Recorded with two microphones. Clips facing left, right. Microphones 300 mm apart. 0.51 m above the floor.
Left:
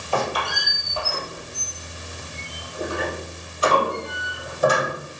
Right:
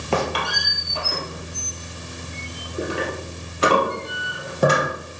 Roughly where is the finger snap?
I don't hear a finger snap.